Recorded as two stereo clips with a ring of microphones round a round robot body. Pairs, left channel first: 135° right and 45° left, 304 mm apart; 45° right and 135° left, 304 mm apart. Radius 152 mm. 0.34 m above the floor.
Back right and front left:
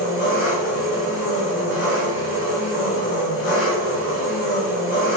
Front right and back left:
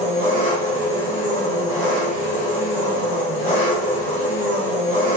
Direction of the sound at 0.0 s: 105° right.